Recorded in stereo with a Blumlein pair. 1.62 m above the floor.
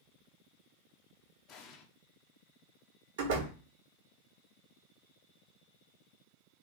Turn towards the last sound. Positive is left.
turn(degrees=-55)